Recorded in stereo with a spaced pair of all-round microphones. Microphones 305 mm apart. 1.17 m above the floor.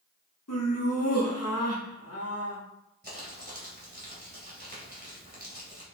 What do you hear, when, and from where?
0.5 s laughter: 55° left (ahead or behind), 1.5 m
3.0 s crumpling: 30° right (ahead or behind), 2.5 m